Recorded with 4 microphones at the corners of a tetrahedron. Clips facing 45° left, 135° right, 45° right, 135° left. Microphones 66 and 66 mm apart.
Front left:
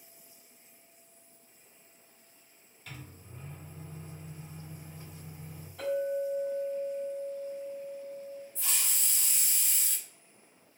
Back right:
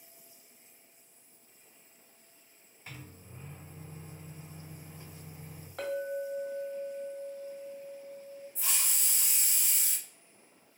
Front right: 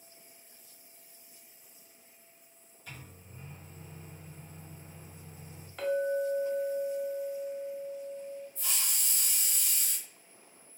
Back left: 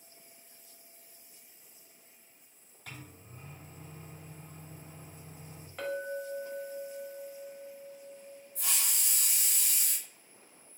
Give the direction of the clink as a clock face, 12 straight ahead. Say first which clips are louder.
Front left 4 dB, front right 7 dB; 5 o'clock.